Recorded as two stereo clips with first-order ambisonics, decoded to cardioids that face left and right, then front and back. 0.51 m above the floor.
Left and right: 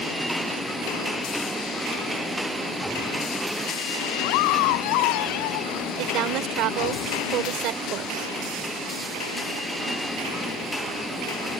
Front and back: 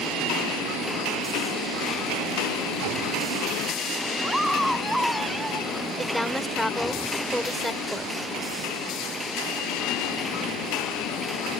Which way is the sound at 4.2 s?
95° left.